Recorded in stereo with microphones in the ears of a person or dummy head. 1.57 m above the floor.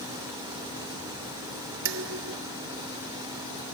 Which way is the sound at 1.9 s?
70° right (ahead or behind).